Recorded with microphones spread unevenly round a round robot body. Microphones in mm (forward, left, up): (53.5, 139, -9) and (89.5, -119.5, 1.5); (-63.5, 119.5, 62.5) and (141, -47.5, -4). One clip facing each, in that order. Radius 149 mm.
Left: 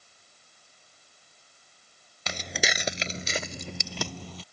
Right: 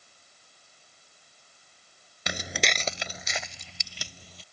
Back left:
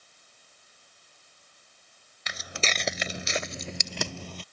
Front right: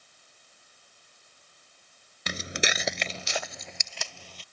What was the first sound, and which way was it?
Footsteps, 55° right.